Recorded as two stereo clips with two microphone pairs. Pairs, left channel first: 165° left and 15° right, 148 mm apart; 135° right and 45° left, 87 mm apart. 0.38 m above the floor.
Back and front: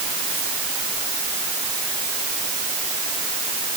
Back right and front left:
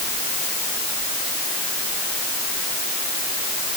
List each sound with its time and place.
Only background noise.